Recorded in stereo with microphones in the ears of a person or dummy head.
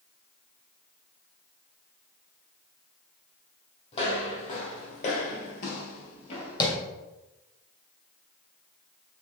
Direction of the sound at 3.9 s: 35° left (ahead or behind).